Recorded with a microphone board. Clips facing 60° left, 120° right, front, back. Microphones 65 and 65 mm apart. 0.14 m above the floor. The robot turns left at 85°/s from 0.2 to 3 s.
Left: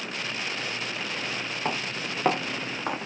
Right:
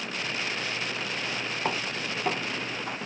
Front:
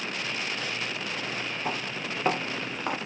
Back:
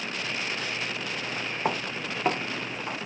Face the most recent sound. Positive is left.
turn(degrees=10)